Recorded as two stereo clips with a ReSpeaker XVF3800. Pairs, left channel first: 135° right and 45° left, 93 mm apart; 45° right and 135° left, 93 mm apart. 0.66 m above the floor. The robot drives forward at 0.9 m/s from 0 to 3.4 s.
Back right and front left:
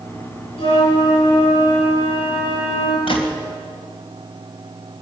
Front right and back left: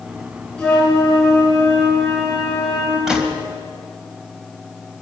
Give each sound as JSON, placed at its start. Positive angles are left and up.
{"t": 0.6, "sound": "a flute", "azimuth_deg": -125, "distance_m": 8.0}
{"t": 3.1, "sound": "a gunshot", "azimuth_deg": -140, "distance_m": 3.0}